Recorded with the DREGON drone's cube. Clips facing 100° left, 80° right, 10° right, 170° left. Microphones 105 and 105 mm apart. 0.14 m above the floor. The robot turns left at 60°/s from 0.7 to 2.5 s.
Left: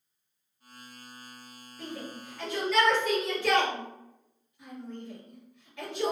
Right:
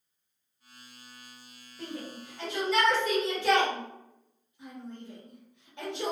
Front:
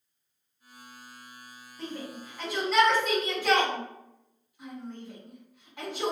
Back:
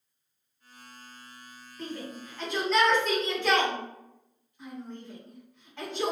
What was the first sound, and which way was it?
A shout, 40° right.